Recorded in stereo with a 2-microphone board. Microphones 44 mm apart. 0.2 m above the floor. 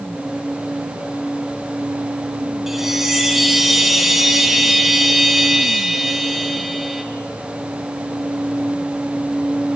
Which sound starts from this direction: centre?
A chime, at 2.7 s.